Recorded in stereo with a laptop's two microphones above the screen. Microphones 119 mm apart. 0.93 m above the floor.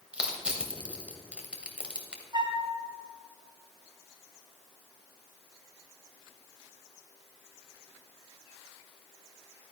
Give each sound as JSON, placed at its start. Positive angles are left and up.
{"t": 0.1, "sound": "crushing", "side_deg": -10, "distance_m": 2.0}
{"t": 2.3, "sound": "a flute", "side_deg": -40, "distance_m": 2.0}